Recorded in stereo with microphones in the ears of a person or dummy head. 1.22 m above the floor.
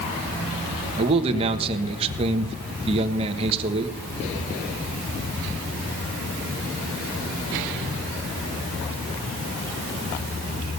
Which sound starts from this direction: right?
A man speaking, at 1.0 s.